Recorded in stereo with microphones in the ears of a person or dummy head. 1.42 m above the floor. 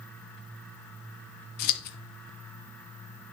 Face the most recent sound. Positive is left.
turn(degrees=50)  # may be behind; listen again after turning